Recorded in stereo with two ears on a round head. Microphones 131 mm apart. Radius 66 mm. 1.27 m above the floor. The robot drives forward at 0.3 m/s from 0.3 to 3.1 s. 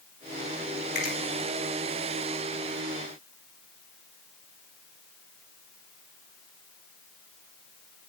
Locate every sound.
0.9 s a finger snap: 55° left (ahead or behind), 5.5 m